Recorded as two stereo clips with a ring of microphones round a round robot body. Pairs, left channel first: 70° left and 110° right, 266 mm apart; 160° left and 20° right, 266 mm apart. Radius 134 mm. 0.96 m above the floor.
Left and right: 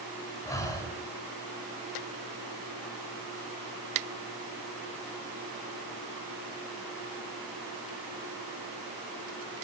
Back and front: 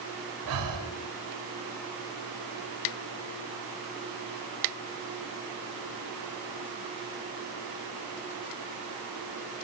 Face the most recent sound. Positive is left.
turn(degrees=-10)